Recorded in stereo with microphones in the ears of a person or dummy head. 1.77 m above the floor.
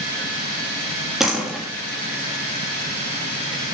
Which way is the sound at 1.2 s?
Centre (ahead or behind).